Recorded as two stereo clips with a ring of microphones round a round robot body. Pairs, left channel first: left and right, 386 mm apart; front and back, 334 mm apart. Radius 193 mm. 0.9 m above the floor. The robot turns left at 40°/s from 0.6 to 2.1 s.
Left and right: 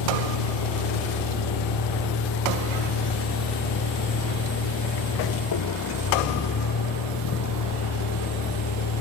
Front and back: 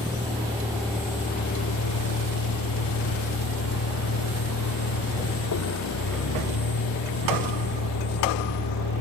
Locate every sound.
0.0 s a vehicle: 100° left; by 9.0 s 40° left